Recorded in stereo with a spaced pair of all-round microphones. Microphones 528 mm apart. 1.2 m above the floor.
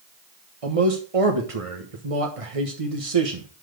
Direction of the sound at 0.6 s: 70° right (ahead or behind).